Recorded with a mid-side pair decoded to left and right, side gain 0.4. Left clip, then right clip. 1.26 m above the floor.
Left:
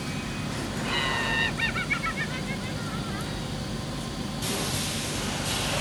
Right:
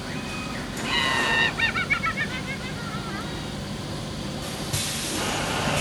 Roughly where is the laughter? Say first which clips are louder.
Right 5 dB; ahead right.